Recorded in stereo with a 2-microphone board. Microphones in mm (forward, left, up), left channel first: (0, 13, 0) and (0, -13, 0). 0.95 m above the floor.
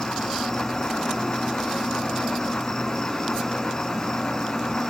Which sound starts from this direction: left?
An insect, at 0.0 s.